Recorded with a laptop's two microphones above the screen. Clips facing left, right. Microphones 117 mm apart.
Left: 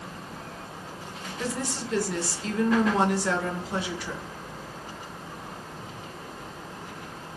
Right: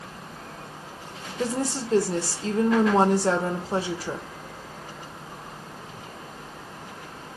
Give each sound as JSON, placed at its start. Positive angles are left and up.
{"t": 1.4, "sound": "a woman speaking", "side_deg": -40, "distance_m": 0.8}